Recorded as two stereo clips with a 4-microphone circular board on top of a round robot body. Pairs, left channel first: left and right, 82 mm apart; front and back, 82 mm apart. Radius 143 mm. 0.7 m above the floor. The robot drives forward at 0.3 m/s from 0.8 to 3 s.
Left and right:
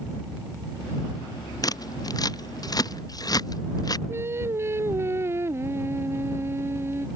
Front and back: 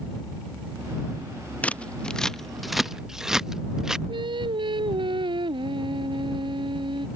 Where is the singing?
150° right.